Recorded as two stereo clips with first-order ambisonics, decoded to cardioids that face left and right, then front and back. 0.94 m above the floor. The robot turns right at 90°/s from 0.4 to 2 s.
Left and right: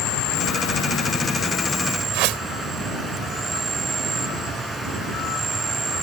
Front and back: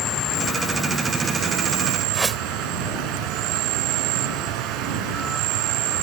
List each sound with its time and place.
0.0 s an insect: 55° left; by 6.0 s 165° right
2.1 s a whoosh: 100° right